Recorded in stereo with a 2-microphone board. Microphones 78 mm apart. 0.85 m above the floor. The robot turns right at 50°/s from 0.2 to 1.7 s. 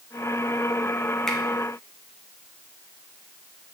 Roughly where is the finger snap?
Centre.